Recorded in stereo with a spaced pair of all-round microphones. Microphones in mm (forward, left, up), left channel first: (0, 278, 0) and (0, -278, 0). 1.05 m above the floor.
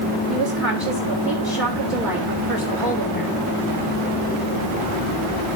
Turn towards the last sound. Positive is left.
turn(degrees=-45)  # may be behind; listen again after turning